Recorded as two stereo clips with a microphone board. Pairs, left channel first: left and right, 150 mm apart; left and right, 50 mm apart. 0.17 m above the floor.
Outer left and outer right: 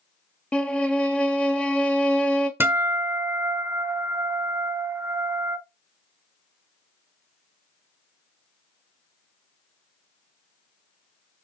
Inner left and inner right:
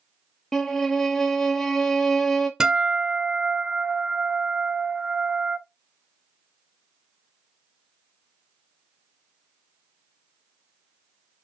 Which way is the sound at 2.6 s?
15° right (ahead or behind).